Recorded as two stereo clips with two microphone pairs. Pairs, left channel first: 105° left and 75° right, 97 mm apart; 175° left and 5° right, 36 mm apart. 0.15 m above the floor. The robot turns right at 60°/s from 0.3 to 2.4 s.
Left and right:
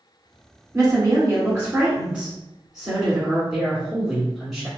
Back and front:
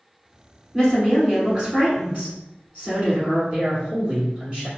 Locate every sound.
0.7 s a woman speaking: 95° right, 1.8 m; by 3.4 s 5° left, 1.8 m
3.5 s a man speaking: 10° left, 1.2 m